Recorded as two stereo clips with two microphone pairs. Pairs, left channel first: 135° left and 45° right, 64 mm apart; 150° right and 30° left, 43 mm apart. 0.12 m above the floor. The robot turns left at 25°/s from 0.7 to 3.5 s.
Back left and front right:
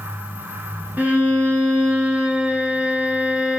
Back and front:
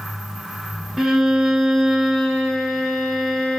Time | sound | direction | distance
1.0 | a violin | 40° right | 1.5 m